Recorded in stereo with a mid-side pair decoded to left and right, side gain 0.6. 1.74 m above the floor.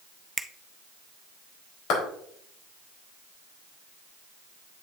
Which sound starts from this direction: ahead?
A finger snap, at 0.4 s.